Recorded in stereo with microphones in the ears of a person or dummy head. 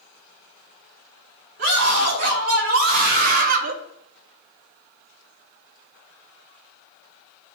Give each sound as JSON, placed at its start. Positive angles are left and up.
{"t": 1.6, "sound": "a scream", "side_deg": -55, "distance_m": 3.0}